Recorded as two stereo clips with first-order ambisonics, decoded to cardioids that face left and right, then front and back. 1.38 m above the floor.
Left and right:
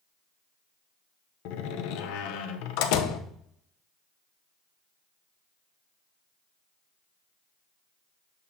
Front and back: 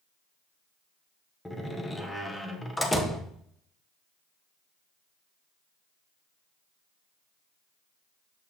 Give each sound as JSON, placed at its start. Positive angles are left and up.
{"t": 1.4, "sound": "a door slam", "azimuth_deg": 80, "distance_m": 0.7}